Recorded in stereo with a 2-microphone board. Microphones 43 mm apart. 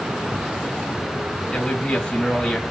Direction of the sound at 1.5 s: 25° left (ahead or behind).